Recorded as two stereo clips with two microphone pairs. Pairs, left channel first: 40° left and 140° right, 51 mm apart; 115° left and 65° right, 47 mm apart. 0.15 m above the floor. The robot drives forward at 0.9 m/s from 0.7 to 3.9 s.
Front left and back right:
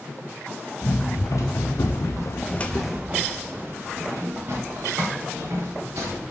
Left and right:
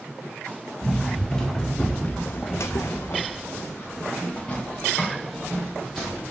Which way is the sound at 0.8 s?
30° left.